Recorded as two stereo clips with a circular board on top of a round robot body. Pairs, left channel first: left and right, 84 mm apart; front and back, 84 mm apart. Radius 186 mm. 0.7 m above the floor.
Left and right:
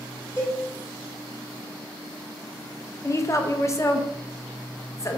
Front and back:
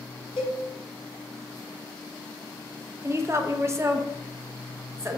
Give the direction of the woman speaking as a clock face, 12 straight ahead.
8 o'clock.